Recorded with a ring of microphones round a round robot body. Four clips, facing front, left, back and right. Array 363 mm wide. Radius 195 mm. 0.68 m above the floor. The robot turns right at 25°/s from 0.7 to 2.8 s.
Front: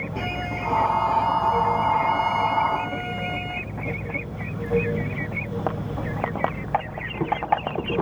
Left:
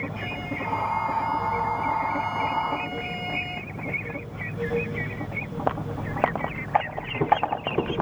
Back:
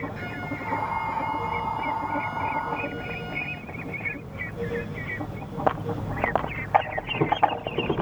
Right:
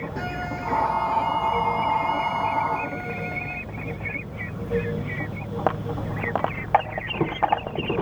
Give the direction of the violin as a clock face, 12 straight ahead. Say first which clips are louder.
Right 3 dB, front 4 dB; 1 o'clock.